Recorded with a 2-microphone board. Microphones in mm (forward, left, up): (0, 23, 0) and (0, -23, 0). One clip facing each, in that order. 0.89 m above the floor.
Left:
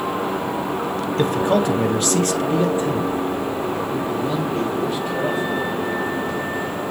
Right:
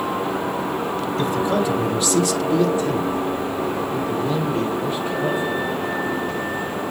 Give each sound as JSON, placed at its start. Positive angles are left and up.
{"t": 1.2, "sound": "a man speaking", "side_deg": 55, "distance_m": 1.2}